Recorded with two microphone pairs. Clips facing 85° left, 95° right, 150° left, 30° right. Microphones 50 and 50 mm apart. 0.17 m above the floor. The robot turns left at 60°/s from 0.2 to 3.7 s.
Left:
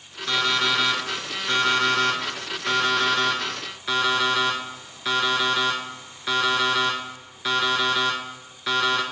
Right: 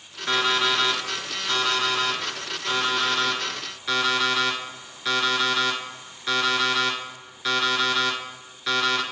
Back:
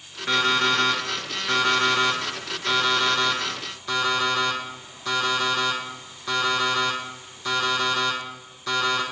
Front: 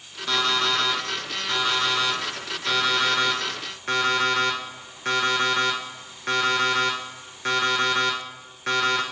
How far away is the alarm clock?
About 1.4 m.